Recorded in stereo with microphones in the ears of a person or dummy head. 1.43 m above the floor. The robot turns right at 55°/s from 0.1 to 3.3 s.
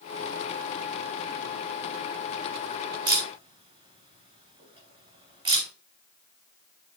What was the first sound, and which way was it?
A camera shutter, 25° right (ahead or behind).